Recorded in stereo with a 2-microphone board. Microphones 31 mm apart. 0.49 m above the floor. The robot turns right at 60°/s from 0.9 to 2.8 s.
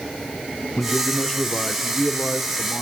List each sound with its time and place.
0.8 s a man speaking: 110° left, 1.0 m; by 2.8 s 135° right, 1.0 m